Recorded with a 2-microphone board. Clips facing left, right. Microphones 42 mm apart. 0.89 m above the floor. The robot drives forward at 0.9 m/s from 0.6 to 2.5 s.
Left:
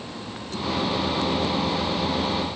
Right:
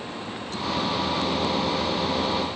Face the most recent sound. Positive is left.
No sound to turn to.